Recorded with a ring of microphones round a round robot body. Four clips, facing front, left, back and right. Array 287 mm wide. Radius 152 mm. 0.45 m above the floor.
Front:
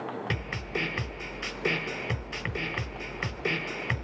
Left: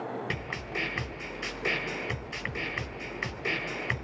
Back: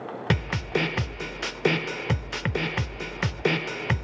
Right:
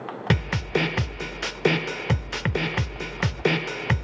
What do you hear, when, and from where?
0.3 s a snare drum: 120° right, 0.7 m